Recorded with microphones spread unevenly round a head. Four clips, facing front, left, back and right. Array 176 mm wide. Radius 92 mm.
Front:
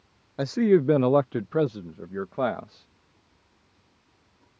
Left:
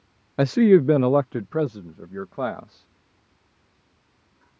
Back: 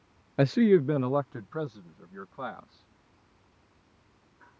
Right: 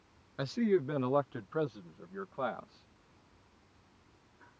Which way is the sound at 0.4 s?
115° left.